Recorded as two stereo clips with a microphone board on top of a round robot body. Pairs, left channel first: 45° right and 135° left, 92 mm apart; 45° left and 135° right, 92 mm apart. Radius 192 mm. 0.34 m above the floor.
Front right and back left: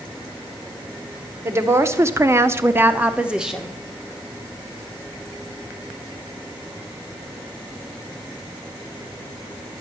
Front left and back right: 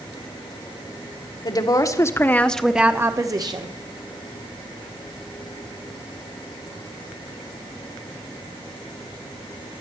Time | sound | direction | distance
1.4 | a woman speaking | 80° left | 2.0 m